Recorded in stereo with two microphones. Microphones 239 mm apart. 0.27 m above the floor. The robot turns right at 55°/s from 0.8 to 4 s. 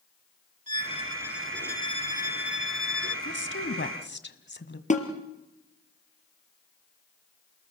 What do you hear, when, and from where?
0.7 s a violin: 35° right, 1.0 m; by 3.1 s 95° left, 1.0 m
3.2 s a woman speaking: 75° left, 1.8 m; by 4.8 s 115° left, 1.8 m
4.9 s a snare drum: 30° left (ahead or behind), 3 m